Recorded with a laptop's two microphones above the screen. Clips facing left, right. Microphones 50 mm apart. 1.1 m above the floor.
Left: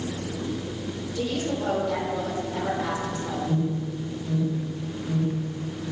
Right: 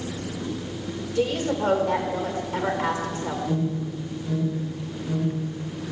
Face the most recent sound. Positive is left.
turn(degrees=-30)  # may be behind; listen again after turning